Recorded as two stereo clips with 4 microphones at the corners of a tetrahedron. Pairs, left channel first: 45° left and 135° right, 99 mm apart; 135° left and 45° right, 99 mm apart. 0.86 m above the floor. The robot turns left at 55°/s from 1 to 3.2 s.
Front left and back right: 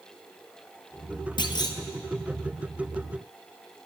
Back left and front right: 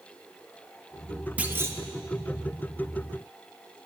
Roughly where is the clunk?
Ahead left.